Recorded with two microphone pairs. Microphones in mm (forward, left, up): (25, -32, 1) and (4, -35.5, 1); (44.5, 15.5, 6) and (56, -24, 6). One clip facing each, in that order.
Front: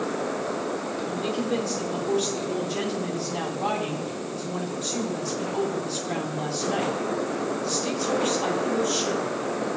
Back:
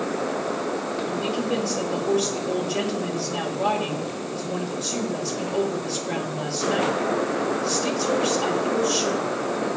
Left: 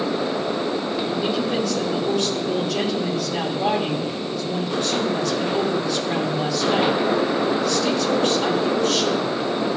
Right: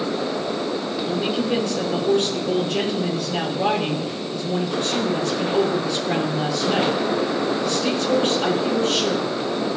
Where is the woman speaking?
125° right, 6 m.